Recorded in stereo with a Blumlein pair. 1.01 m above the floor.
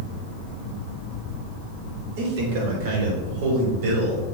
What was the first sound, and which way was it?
A man speaking, 55° right.